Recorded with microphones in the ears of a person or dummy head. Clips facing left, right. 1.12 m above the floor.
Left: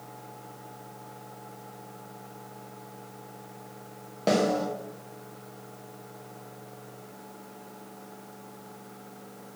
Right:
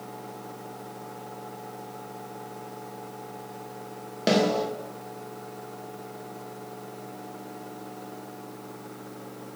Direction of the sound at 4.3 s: 10° right (ahead or behind).